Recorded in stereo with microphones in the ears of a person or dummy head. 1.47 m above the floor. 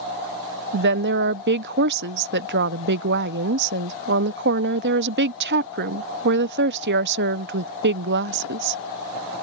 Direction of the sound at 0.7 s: 65° right (ahead or behind).